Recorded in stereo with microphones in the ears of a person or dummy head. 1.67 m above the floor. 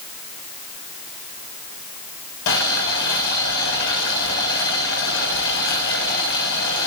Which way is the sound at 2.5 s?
65° left (ahead or behind).